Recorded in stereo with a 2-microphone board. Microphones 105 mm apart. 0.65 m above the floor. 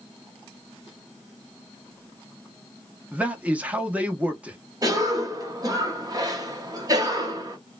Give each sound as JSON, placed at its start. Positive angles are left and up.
{"t": 3.1, "sound": "a man speaking", "side_deg": -15, "distance_m": 0.7}
{"t": 4.8, "sound": "a cough", "side_deg": -35, "distance_m": 1.0}